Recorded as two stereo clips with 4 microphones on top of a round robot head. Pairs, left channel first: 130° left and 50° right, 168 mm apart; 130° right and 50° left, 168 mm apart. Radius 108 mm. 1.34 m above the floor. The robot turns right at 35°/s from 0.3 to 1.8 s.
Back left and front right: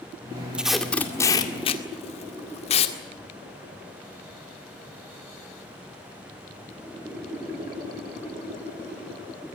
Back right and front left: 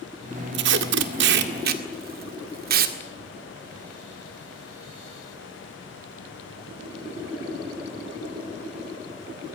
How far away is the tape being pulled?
About 1.9 m.